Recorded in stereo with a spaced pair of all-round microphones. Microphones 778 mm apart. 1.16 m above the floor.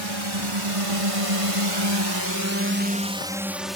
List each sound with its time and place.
0.0 s a drone: 35° right (ahead or behind); by 3.8 s centre (ahead or behind)